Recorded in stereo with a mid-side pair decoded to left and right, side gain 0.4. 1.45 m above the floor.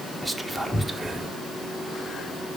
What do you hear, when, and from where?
0.2 s whispering: 5° right, 0.9 m